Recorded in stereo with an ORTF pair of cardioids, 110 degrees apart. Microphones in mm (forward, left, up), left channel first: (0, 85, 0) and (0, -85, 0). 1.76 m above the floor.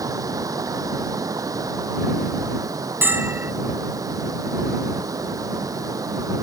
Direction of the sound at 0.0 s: 20° right.